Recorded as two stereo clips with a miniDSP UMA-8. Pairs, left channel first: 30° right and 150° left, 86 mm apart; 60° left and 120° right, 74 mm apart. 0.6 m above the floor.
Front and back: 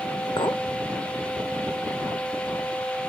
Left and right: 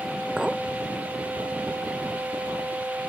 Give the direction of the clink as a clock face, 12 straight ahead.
1 o'clock.